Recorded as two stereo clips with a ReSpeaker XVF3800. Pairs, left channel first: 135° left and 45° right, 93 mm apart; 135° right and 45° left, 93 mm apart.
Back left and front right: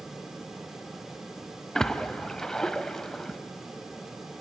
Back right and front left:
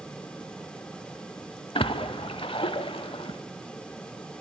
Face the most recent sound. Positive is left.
turn(degrees=-140)